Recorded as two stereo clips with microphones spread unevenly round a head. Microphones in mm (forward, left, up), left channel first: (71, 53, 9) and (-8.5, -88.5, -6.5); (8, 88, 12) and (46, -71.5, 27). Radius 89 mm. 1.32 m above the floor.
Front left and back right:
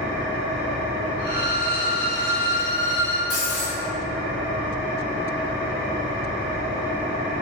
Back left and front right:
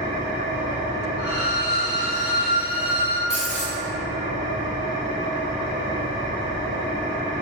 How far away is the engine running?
About 1.2 m.